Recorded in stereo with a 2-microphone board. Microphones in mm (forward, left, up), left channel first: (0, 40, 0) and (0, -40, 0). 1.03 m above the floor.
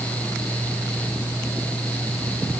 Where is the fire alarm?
No fire alarm in this recording.